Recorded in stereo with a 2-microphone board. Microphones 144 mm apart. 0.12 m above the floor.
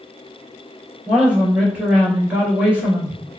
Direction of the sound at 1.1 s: 10° right (ahead or behind).